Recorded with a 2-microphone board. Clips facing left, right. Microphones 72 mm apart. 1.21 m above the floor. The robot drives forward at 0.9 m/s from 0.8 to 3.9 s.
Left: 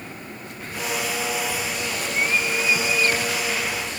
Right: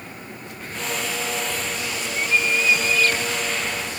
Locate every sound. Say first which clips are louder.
1.9 s a bird: even; 50° left (ahead or behind); by 3.5 s 20° left (ahead or behind)